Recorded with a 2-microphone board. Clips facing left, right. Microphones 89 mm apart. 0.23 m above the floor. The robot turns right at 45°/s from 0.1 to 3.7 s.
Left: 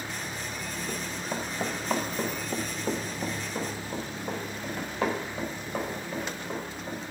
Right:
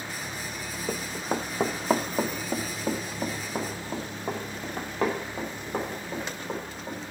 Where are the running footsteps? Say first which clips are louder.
Right 6 dB; 65° right (ahead or behind), 0.9 m.